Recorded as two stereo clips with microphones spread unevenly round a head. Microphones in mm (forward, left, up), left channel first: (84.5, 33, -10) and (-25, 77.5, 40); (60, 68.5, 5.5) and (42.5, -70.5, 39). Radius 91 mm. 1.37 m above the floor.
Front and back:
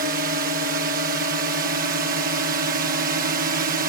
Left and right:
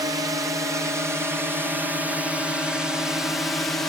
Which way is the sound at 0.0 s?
170° right.